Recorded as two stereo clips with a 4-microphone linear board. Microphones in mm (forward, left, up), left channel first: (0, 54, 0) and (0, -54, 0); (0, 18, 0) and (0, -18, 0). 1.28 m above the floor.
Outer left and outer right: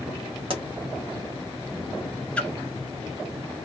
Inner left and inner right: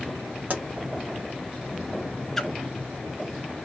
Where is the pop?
55° right (ahead or behind), 1.2 m.